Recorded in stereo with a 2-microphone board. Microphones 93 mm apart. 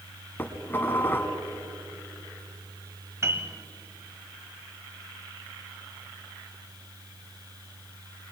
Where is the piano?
30° right (ahead or behind), 1.6 m.